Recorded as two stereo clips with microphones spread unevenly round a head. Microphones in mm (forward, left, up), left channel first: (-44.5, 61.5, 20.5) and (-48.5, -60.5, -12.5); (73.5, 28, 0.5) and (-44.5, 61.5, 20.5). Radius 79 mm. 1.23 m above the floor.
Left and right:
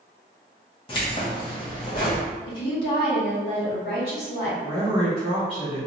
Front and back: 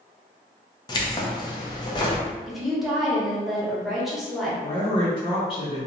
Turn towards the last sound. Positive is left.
turn(degrees=30)